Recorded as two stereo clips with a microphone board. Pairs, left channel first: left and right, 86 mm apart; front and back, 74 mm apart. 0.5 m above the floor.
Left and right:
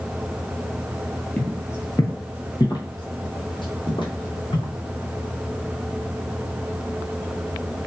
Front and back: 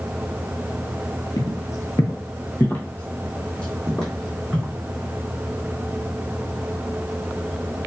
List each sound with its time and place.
1.4 s footsteps: 20° left, 0.8 m; by 4.7 s 85° left, 1.9 m